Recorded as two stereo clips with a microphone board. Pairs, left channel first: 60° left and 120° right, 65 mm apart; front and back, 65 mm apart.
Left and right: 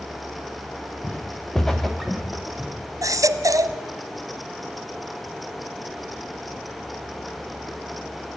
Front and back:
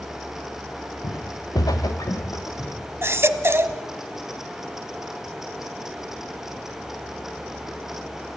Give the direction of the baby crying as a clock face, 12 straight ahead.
5 o'clock.